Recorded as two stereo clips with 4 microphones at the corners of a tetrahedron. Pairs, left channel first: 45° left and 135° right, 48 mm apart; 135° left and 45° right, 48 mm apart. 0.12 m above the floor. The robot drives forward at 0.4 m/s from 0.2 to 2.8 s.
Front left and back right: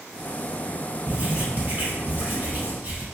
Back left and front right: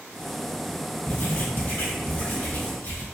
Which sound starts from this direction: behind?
Writing, at 1.1 s.